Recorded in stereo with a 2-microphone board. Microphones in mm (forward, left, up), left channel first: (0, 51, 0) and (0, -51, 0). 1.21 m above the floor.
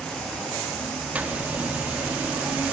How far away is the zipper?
About 3 m.